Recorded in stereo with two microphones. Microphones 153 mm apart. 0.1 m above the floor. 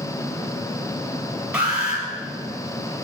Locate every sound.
1.5 s an alarm: 10° right (ahead or behind), 3.5 m